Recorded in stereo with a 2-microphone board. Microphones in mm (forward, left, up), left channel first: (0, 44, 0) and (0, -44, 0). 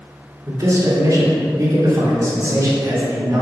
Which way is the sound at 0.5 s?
35° right (ahead or behind).